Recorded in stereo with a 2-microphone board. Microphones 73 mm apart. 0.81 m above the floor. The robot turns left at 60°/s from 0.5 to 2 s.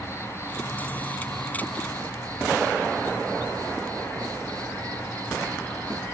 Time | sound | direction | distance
0.0 | an insect | 35° right | 1.9 m